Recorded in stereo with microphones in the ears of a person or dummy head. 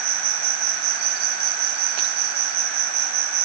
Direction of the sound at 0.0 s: 45° right (ahead or behind).